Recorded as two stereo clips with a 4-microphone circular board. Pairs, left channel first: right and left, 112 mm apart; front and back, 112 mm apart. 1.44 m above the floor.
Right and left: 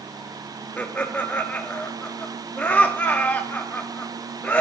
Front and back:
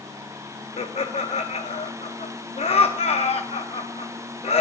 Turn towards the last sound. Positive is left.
turn(degrees=-15)